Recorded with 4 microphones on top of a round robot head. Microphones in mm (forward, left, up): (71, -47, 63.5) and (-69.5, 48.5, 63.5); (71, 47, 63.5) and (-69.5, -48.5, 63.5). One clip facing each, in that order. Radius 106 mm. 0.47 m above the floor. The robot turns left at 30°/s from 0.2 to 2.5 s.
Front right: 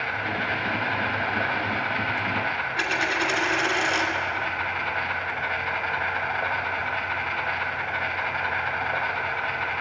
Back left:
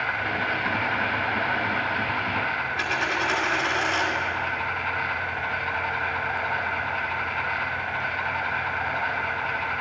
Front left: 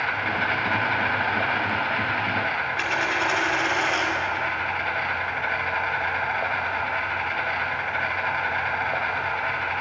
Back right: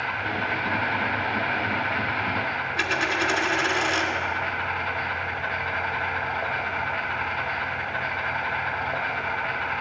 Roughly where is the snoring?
No snoring in this recording.